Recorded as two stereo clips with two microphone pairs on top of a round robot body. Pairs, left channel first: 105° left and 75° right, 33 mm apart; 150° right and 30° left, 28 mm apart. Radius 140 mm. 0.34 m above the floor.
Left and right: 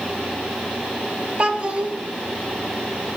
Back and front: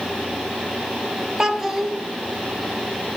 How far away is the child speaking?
About 0.7 m.